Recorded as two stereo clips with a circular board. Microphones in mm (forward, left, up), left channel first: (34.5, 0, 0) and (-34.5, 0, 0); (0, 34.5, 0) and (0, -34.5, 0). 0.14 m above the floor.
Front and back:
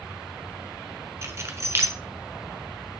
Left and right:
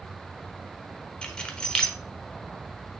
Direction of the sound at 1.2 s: 160° left.